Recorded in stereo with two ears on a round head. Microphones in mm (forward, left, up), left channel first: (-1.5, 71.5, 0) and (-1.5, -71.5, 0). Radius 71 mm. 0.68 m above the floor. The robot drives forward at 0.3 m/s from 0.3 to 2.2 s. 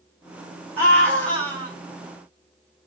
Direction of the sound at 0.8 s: 10° left (ahead or behind).